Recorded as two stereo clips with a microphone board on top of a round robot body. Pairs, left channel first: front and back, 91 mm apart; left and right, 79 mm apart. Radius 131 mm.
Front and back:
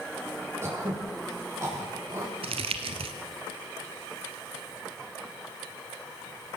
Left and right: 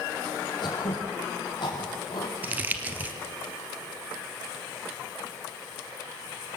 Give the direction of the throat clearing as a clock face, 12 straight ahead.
8 o'clock.